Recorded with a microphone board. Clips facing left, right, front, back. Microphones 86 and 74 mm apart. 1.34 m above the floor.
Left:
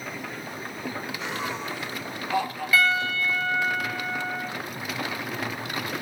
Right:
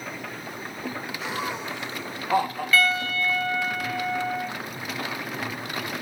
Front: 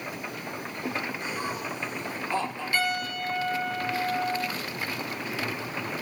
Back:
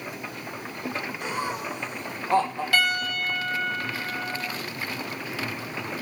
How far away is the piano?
About 1.1 m.